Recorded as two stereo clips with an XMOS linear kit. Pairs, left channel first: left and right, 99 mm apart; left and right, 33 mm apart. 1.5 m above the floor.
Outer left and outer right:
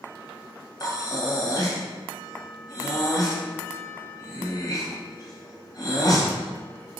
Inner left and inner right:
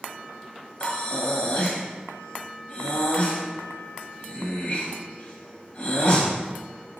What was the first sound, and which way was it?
Breathing, 40° left (ahead or behind).